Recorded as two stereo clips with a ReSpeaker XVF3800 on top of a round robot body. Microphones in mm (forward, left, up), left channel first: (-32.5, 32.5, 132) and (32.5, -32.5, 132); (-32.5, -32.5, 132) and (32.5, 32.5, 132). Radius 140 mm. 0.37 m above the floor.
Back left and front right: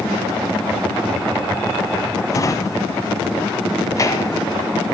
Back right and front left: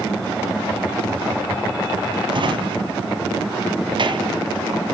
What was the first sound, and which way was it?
A drawer, 80° left.